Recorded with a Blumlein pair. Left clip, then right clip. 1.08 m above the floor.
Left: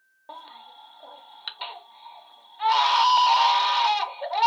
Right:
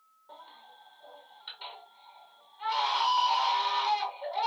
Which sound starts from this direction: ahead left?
A baby crying, at 0.3 s.